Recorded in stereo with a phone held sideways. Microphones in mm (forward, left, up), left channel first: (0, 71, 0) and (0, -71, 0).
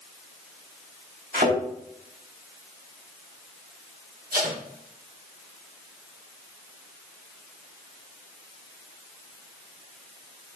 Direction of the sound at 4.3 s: 80° right.